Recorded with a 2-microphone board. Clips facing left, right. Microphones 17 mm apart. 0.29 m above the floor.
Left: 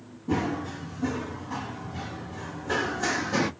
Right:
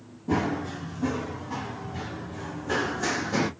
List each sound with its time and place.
0.3 s running footsteps: 5° right (ahead or behind), 3.5 m; by 3.5 s 10° left (ahead or behind), 0.5 m